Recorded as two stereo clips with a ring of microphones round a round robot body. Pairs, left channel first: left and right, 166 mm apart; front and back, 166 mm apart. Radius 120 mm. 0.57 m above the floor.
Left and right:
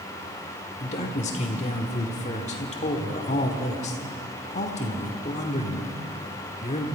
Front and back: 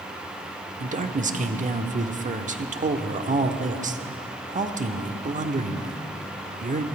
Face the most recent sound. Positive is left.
turn(degrees=140)